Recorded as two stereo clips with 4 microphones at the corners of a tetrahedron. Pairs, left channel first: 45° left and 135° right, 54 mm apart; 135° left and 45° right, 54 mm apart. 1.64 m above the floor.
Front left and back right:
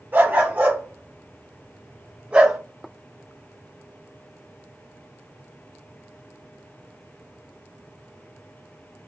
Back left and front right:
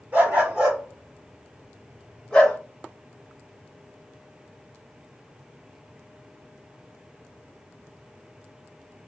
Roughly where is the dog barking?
Right.